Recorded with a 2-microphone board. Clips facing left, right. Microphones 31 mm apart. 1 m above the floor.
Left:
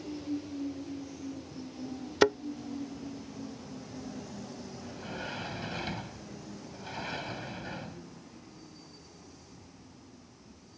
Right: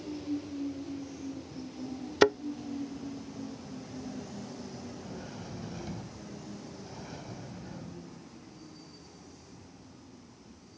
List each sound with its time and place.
2.2 s a thud: centre (ahead or behind)
4.8 s a sliding door: 75° left (ahead or behind)